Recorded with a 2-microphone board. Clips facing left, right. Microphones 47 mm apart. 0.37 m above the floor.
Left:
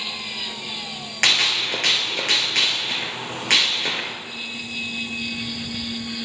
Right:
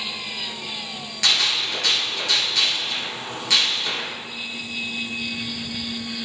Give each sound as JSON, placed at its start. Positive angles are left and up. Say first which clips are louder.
{"t": 1.2, "sound": "a gunshot", "louder": "left 2 dB", "side_deg": 50, "distance_m": 1.9}